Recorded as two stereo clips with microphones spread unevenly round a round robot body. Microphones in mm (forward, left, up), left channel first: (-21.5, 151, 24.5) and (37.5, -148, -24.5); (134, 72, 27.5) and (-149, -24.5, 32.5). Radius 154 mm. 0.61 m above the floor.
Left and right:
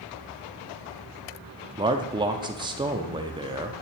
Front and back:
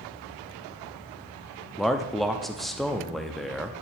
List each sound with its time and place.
1.8 s a man speaking: 65° right, 0.6 m